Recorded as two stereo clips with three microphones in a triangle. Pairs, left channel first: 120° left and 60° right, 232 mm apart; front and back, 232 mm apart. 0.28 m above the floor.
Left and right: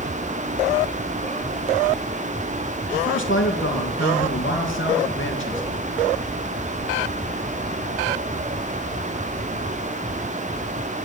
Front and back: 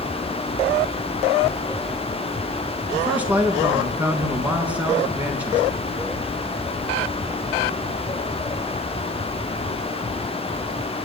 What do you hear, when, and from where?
2.9 s a man speaking: 100° left, 3.5 m